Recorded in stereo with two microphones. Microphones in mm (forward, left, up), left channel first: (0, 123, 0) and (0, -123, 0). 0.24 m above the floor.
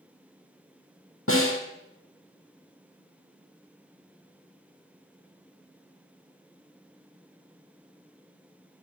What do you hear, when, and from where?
1.3 s a snare drum: 70° left (ahead or behind), 2 m